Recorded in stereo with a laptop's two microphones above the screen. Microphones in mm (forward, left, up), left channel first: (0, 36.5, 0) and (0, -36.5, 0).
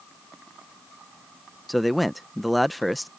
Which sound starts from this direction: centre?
A man speaking, at 1.7 s.